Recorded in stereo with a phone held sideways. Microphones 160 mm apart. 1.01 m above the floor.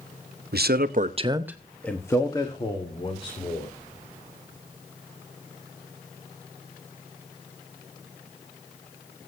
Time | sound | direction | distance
0.5 | a man speaking | 80° right | 1.0 m